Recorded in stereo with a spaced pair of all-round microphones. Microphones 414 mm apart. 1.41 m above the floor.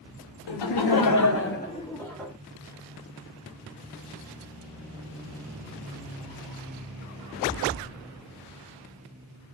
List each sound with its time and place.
0.5 s laughter: 85° left, 0.6 m; by 2.3 s centre (ahead or behind), 0.8 m